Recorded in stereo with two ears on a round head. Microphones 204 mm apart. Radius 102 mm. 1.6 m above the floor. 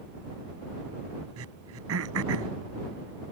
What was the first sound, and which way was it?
Throat clearing, 70° right (ahead or behind).